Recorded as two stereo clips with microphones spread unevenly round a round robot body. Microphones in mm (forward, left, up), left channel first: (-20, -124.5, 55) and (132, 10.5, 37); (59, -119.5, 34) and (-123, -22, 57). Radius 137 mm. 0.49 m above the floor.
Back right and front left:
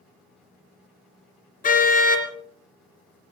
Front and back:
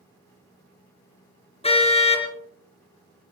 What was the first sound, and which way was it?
A car horn, 90° right.